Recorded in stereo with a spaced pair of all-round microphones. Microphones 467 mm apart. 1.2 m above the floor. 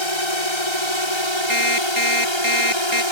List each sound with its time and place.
0.0 s a drone: 65° left (ahead or behind)
1.5 s an alarm clock: 80° right